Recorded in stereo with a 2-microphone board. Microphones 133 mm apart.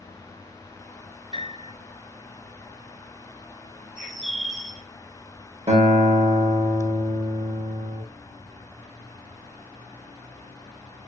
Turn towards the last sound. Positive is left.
turn(degrees=-50)  # may be behind; listen again after turning